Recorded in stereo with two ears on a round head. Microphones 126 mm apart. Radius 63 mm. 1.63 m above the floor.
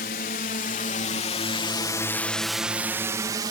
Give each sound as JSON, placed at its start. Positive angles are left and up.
{"t": 0.0, "sound": "a drone", "side_deg": 70}